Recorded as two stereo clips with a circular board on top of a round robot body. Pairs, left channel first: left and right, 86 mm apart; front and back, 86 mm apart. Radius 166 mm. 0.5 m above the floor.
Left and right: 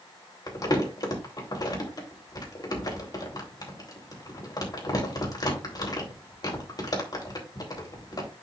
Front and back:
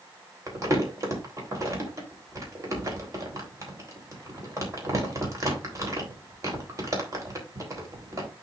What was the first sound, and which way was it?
Crumpling, 130° left.